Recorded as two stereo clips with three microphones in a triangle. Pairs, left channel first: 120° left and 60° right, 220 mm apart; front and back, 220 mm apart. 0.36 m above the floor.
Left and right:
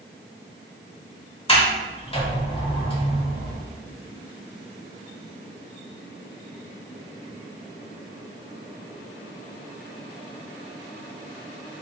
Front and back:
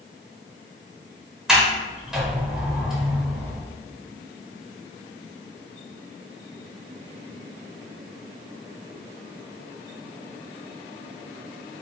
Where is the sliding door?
95° left, 0.9 m.